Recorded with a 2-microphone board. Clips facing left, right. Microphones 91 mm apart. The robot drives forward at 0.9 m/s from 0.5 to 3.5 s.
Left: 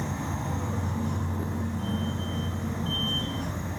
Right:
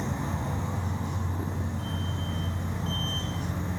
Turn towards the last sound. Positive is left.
turn(degrees=-5)  # may be behind; listen again after turning